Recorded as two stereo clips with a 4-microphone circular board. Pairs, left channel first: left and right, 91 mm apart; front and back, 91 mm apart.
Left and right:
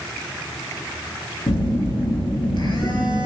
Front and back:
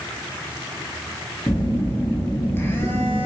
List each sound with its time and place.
1.5 s a phone buzzing: 65° left, 0.6 m